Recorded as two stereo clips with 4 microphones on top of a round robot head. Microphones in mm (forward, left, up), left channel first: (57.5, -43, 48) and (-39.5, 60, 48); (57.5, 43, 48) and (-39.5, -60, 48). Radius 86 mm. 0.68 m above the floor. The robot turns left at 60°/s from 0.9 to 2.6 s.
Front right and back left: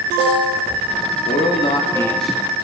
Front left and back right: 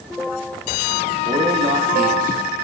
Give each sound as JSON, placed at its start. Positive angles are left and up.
{"t": 1.2, "sound": "a man speaking", "azimuth_deg": -75, "distance_m": 1.2}